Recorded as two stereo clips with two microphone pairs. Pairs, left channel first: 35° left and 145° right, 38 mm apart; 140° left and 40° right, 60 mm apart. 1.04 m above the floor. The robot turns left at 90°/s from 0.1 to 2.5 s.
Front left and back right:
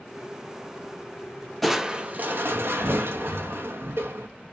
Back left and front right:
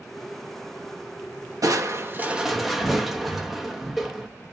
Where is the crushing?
50° right, 0.8 m; by 4.3 s 130° right, 0.8 m.